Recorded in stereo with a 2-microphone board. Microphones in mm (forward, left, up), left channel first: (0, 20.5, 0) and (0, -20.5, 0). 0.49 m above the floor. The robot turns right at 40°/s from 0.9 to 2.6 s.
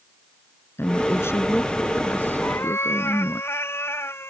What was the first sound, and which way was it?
A woman speaking, 65° left.